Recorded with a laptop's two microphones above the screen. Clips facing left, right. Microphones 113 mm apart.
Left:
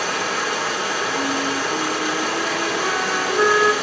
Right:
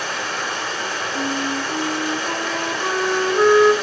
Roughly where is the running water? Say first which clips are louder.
Left 3 dB; left.